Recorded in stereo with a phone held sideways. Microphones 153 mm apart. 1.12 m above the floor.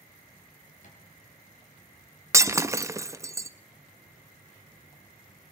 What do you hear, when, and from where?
0.8 s a thud: 55° left (ahead or behind), 3.5 m
2.3 s breaking glass: 20° right (ahead or behind), 0.5 m